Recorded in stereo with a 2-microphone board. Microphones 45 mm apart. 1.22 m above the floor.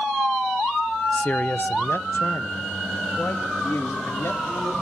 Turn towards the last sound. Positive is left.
turn(degrees=80)